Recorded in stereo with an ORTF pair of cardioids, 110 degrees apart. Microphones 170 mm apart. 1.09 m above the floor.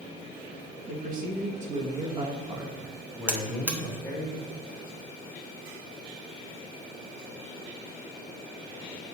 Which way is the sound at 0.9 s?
60° right.